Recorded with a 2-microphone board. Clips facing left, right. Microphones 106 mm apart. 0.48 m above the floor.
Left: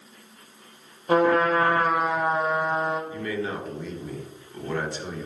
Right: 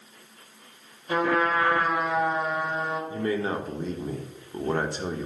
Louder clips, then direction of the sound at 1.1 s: Left 4 dB; 50° left (ahead or behind).